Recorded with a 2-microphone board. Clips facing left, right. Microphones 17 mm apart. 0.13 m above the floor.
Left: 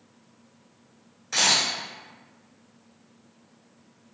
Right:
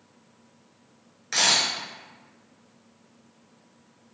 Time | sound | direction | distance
1.3 | a camera shutter | 35° right (ahead or behind) | 1.8 m